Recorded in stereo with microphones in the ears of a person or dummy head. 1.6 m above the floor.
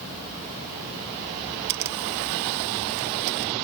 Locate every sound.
1.7 s a camera shutter: 60° right (ahead or behind)